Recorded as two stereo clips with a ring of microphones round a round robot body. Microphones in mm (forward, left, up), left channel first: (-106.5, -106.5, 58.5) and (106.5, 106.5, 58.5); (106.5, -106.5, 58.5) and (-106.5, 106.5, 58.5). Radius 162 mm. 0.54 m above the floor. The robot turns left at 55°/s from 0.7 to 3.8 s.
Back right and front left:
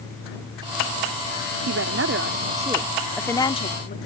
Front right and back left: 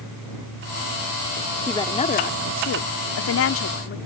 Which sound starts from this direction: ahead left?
A woman speaking, at 1.7 s.